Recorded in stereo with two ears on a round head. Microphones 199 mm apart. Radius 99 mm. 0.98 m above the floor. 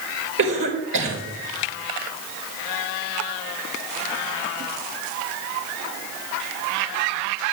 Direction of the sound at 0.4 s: 60° right (ahead or behind).